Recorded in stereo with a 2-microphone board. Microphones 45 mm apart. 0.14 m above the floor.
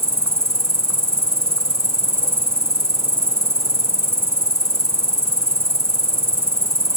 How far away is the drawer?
I don't hear a drawer.